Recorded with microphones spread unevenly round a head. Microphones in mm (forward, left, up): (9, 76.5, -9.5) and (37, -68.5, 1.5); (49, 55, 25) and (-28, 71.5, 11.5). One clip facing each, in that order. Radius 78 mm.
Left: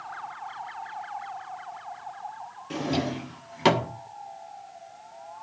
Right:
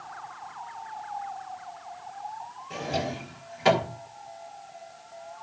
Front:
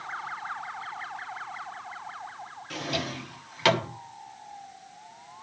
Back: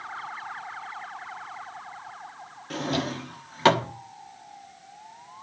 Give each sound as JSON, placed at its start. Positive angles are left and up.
{"t": 2.7, "sound": "a drawer", "azimuth_deg": 115, "distance_m": 1.2}